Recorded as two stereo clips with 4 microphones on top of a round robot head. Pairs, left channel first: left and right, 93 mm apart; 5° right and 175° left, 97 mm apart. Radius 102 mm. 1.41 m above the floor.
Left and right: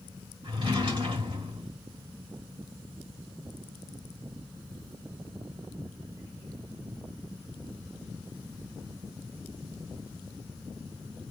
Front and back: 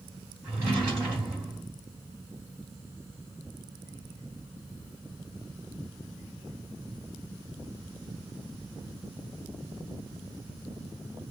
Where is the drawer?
120° right, 1.4 m.